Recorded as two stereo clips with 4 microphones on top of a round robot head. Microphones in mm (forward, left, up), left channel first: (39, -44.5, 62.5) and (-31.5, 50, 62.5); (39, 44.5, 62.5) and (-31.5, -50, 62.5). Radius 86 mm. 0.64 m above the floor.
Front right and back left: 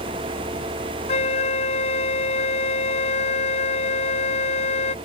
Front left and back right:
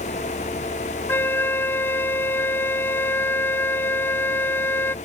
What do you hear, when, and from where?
1.1 s a flute: 20° right